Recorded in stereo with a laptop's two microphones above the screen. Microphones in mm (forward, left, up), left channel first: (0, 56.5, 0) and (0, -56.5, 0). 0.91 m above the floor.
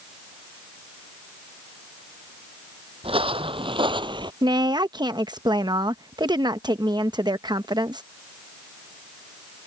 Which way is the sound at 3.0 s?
55° right (ahead or behind).